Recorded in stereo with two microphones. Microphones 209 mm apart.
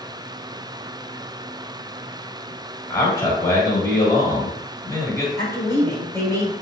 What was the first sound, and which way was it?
A man speaking, 15° left (ahead or behind).